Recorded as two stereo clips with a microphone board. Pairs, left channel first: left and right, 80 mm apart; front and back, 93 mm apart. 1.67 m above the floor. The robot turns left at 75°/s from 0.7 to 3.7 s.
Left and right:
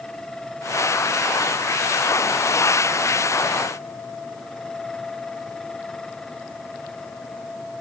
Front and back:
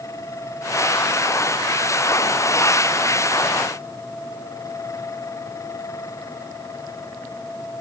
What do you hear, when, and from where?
Only background noise.